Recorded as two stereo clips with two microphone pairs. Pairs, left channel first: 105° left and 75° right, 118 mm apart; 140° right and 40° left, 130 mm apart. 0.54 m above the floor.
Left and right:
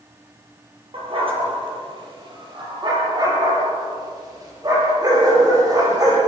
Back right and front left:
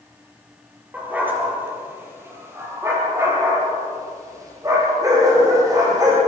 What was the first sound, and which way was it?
A dog barking, 40° right.